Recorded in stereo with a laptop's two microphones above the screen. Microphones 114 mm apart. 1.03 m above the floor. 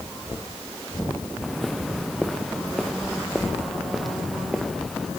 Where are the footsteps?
Centre (ahead or behind).